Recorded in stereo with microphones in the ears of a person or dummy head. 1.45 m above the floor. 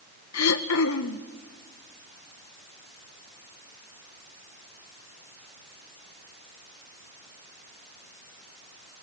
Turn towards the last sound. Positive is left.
turn(degrees=75)  # may be behind; listen again after turning